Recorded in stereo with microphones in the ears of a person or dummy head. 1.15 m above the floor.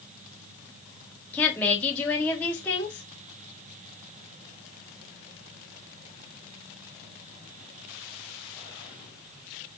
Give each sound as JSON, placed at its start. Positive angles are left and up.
{"t": 1.3, "sound": "a woman speaking", "side_deg": 5, "distance_m": 2.0}